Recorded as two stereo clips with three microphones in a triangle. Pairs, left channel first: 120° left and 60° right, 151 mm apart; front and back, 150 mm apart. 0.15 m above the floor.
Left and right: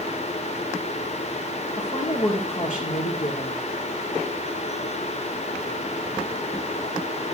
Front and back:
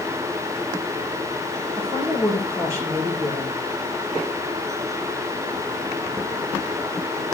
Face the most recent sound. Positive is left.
turn(degrees=115)